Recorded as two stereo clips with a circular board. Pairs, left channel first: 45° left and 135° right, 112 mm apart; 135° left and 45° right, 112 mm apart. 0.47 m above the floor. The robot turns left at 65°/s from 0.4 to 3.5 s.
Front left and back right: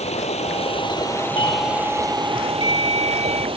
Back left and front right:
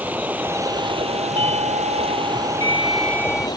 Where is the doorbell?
Straight ahead; by 3.5 s 135° right.